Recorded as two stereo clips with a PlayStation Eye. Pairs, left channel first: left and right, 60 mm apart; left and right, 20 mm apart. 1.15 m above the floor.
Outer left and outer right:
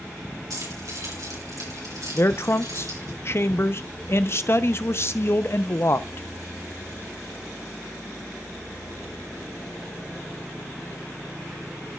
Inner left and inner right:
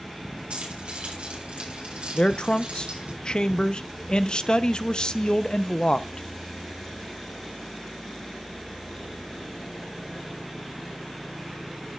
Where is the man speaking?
45° left (ahead or behind), 0.6 m.